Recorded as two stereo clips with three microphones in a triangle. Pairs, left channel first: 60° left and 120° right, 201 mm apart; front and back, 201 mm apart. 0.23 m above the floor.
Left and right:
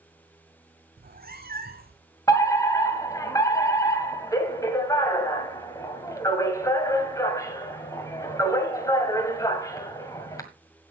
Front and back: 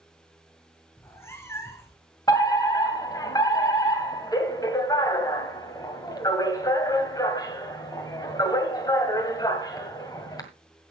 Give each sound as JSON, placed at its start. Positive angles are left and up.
{"t": 1.0, "sound": "a cat meowing", "azimuth_deg": -75, "distance_m": 1.2}
{"t": 2.3, "sound": "a fire alarm", "azimuth_deg": 25, "distance_m": 1.9}